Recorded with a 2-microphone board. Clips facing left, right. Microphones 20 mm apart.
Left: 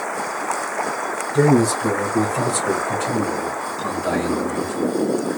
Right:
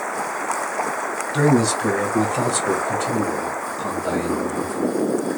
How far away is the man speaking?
About 1.8 m.